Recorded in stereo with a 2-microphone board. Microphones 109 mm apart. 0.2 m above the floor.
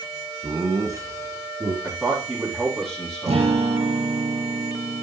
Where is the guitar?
75° right (ahead or behind), 3.5 m.